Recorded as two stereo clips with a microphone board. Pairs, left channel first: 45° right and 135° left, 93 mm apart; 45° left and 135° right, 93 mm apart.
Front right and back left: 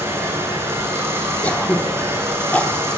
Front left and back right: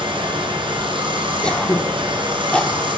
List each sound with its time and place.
0.0 s running water: 160° right, 3 m
1.4 s throat clearing: 10° right, 0.9 m